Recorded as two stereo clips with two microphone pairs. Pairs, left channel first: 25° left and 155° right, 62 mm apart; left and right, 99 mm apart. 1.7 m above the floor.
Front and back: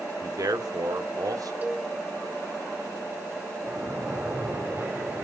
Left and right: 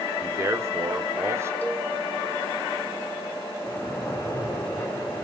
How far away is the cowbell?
About 1.4 m.